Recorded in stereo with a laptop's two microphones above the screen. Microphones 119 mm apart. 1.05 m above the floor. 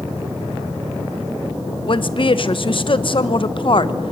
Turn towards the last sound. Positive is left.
turn(degrees=50)  # may be behind; listen again after turning